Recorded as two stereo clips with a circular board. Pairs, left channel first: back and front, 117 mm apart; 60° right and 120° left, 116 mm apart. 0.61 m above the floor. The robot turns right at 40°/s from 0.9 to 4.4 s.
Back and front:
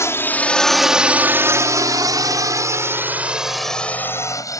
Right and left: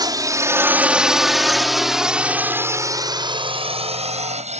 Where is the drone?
130° left; by 4.6 s 120° left.